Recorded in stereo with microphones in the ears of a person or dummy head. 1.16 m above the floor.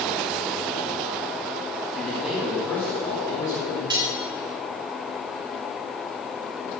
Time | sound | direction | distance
1.9 | a man speaking | 10° right (ahead or behind) | 2 m
3.9 | cutlery clinking | 30° right (ahead or behind) | 3 m